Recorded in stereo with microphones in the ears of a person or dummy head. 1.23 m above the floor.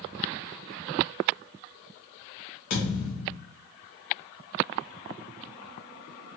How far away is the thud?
About 1.4 m.